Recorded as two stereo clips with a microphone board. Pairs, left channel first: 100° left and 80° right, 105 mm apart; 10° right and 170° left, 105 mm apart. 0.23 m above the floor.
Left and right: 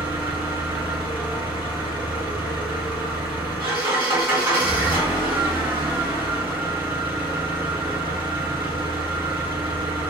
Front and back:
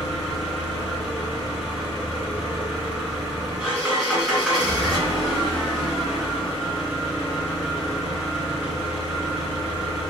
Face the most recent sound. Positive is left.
turn(degrees=-110)